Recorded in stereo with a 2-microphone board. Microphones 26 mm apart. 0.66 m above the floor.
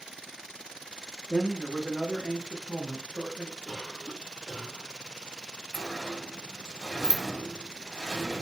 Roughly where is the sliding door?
Centre.